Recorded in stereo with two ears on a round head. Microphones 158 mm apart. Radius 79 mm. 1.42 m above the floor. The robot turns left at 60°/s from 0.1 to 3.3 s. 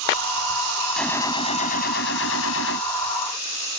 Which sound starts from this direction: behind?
A gunshot, at 1.0 s.